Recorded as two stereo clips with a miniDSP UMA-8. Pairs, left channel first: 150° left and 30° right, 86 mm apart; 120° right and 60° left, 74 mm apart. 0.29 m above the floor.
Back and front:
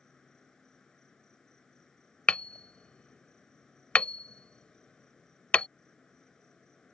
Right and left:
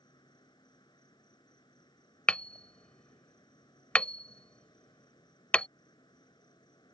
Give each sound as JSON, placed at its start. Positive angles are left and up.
{"t": 0.0, "sound": "an insect", "azimuth_deg": -125}
{"t": 2.3, "sound": "hammering", "azimuth_deg": -160}